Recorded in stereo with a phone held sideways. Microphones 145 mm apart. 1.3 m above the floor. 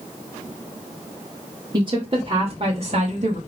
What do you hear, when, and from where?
1.7 s a woman speaking: 30° right (ahead or behind), 3 m; by 3.4 s 55° right (ahead or behind), 2.5 m